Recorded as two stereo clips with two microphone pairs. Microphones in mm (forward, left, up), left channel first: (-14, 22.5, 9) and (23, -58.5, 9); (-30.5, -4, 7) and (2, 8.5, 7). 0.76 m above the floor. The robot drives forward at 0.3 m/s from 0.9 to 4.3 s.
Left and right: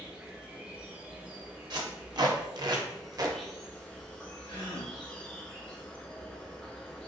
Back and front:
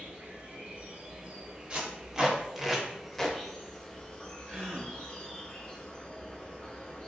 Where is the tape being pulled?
40° right, 0.7 m; by 3.4 s 90° right, 0.5 m.